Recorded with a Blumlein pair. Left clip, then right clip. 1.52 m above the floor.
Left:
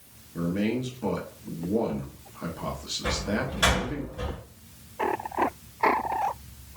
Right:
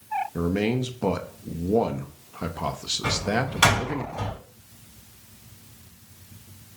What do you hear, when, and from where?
0.3 s a man speaking: 25° right, 0.9 m
3.0 s a door slam: 55° right, 3 m